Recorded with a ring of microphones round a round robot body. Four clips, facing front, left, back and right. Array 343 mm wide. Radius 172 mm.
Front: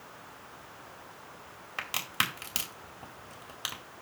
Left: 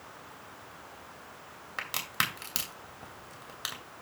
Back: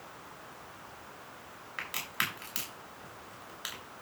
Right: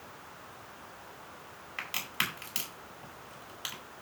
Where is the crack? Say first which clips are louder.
Left 3 dB, front 3 dB; 40° left, 2 m.